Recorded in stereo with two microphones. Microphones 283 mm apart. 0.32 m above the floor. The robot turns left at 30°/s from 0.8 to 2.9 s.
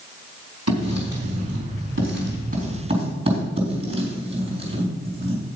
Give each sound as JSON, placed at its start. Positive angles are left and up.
{"t": 0.7, "sound": "writing", "side_deg": -65, "distance_m": 3.5}